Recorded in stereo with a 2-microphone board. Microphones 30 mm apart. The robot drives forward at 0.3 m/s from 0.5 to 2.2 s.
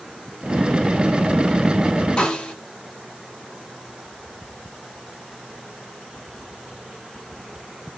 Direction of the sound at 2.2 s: 25° left (ahead or behind).